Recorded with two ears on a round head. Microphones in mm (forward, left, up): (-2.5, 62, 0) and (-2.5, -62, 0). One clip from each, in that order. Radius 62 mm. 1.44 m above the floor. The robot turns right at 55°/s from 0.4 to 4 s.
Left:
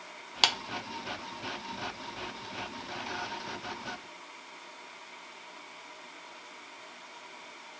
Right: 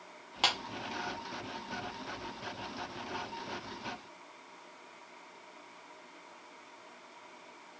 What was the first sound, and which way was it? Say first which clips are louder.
A clap: left 4 dB; 65° left (ahead or behind).